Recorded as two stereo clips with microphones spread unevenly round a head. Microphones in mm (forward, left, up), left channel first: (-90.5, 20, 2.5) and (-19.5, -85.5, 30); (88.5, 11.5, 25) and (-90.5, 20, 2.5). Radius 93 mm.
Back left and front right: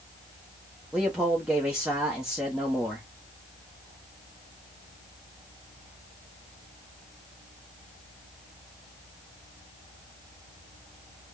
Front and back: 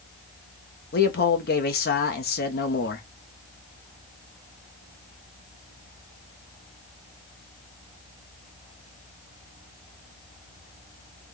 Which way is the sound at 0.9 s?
25° left.